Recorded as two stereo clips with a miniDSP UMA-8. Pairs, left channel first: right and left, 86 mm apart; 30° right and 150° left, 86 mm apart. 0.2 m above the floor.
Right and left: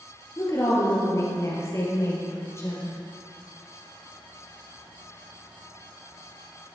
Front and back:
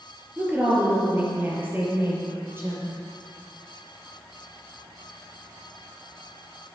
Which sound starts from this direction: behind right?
A woman speaking, at 0.4 s.